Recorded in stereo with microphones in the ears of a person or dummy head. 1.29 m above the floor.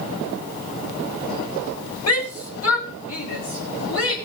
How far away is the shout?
About 2.5 m.